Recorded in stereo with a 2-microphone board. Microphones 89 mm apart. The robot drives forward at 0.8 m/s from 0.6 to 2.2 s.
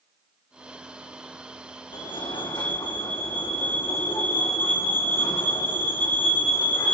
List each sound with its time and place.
1.9 s a fire alarm: 65° left (ahead or behind), 5 m